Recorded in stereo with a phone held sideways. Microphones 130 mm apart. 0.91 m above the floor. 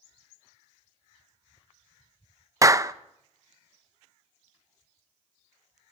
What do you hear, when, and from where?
2.6 s a clap: 25° right (ahead or behind), 0.6 m